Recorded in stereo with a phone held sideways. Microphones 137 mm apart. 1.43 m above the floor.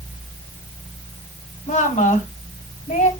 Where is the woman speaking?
85° left, 2.5 m.